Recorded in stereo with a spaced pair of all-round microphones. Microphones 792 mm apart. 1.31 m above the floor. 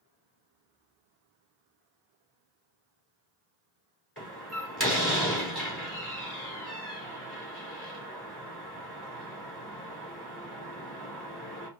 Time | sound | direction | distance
4.2 | a door slam | 15° left (ahead or behind) | 2.5 m